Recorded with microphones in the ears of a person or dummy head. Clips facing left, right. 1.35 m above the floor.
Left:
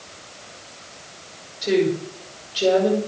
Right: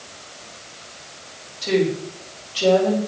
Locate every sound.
1.6 s a woman speaking: 20° left (ahead or behind), 6 m